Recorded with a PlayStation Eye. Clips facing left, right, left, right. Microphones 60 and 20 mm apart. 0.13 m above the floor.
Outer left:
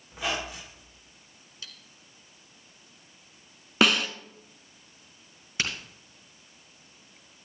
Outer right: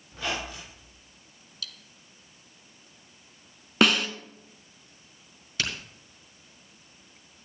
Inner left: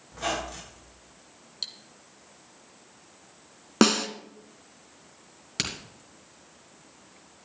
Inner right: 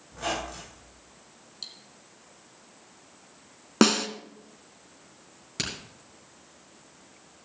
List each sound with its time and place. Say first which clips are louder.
0.1 s a squeak: outer left 1 dB, inner left 1 dB; 15° left (ahead or behind), 5.5 m
1.6 s cutlery clinking: outer right 3 dB, inner left 5 dB; 30° left (ahead or behind), 0.7 m
3.8 s a snare drum: outer right 1 dB, even; centre (ahead or behind), 0.6 m
5.6 s a crack: outer left 1 dB, inner left 2 dB; 25° left (ahead or behind), 2.5 m